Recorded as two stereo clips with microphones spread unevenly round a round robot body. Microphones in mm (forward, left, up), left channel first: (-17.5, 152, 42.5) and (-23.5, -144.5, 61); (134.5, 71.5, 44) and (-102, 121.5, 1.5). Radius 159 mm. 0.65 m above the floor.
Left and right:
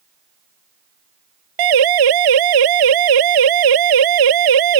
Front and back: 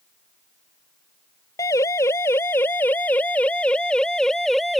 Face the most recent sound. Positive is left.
turn(degrees=-100)